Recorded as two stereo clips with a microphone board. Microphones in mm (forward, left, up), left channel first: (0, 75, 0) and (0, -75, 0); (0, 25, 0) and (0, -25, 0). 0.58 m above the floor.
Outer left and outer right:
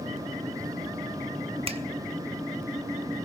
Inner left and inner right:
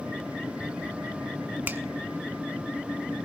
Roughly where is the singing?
I don't hear singing.